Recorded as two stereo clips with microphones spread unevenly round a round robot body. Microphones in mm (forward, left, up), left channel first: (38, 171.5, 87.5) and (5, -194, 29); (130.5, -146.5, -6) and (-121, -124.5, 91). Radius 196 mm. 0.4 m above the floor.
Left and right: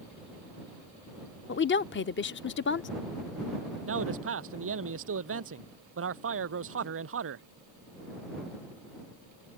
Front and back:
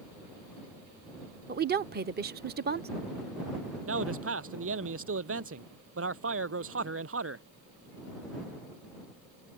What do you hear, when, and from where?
1.5 s a woman speaking: 120° left
3.9 s a man speaking: 155° right